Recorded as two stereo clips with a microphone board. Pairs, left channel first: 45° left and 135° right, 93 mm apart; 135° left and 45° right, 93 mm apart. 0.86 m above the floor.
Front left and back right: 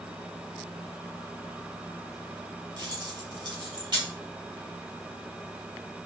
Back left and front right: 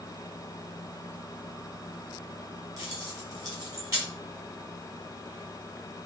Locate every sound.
2.8 s keys jangling: 95° right, 3.5 m